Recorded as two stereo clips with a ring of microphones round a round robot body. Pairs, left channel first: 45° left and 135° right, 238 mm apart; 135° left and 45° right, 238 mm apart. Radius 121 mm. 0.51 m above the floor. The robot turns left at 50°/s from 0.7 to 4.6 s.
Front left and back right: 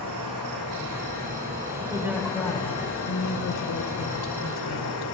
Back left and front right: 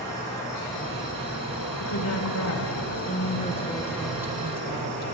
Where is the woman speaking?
160° left, 1.9 m; by 5.0 s 20° left, 1.9 m.